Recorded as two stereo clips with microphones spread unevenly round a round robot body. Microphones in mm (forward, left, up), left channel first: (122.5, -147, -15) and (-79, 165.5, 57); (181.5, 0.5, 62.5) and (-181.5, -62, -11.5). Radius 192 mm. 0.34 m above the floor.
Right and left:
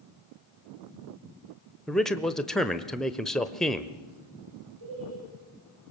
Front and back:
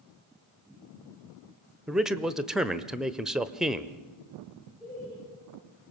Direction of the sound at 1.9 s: 115° right.